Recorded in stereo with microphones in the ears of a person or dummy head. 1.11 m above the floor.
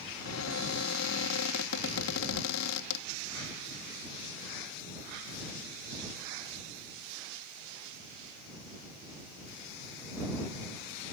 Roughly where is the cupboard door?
Left.